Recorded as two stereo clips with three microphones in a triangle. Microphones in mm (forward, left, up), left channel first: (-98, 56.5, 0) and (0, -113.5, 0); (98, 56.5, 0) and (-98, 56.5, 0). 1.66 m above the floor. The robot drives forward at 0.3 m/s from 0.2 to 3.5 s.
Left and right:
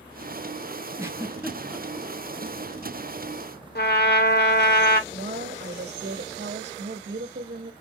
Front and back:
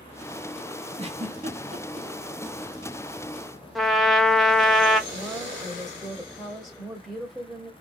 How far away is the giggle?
About 0.7 m.